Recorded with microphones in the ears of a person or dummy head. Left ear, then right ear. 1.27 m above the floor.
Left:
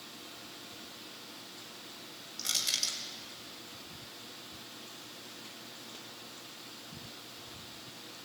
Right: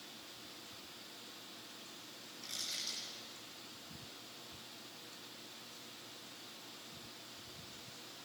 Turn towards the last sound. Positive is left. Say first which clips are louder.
# left 10 dB
turn(degrees=80)